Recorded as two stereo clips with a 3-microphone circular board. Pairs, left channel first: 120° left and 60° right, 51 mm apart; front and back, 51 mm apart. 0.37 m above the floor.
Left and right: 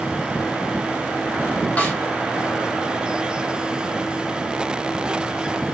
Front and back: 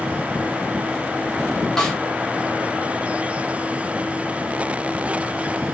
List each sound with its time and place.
1.8 s a snare drum: 75° left, 1.8 m